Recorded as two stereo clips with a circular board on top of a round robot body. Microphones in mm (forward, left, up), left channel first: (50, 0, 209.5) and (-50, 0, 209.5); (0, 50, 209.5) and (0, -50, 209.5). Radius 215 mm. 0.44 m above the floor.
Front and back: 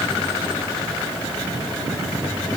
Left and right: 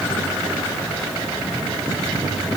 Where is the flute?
I don't hear a flute.